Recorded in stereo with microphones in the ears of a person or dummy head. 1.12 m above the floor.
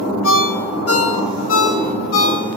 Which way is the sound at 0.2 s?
70° left (ahead or behind).